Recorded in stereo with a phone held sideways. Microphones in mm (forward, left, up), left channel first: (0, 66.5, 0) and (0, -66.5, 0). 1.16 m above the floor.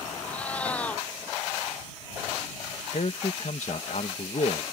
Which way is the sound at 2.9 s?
65° left (ahead or behind).